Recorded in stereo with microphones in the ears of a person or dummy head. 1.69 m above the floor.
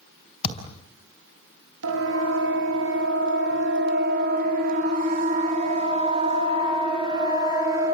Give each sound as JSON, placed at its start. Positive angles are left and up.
{"t": 0.4, "sound": "a thud", "side_deg": 35, "distance_m": 4.0}
{"t": 1.8, "sound": "a siren", "side_deg": -75, "distance_m": 4.0}